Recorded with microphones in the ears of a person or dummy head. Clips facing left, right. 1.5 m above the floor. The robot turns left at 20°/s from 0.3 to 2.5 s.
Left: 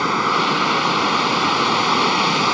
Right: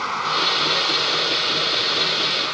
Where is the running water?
130° left; by 2.5 s 85° left.